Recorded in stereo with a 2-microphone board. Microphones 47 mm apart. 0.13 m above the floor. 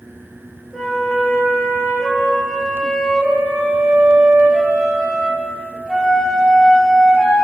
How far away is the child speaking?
I don't hear a child speaking.